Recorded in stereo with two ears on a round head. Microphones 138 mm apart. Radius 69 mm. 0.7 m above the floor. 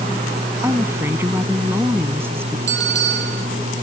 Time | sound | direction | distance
0.6 | a woman speaking | 15° right (ahead or behind) | ?
2.7 | a bell | 85° right | ?